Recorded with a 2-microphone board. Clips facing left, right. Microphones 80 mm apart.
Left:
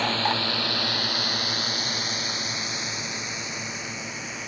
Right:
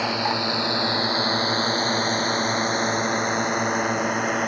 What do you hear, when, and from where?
0.0 s a drone: 10° right (ahead or behind); by 4.5 s 60° right (ahead or behind)